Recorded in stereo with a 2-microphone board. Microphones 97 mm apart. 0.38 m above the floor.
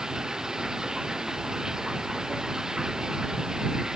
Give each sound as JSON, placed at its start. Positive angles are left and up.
{"t": 0.0, "sound": "running water", "side_deg": -5}